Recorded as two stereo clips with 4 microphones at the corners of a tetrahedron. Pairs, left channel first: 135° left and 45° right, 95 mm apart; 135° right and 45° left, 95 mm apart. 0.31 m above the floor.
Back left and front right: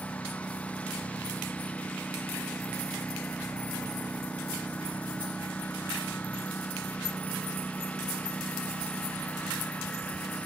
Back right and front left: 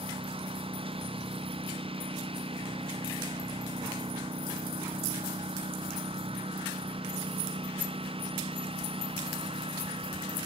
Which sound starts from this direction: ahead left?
A lawn mower, at 0.0 s.